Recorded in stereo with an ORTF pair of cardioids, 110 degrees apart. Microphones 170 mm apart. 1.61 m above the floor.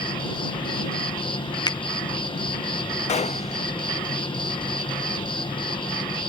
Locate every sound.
0.0 s an insect: 30° left
1.7 s a finger snap: 25° left
3.1 s a gunshot: 40° left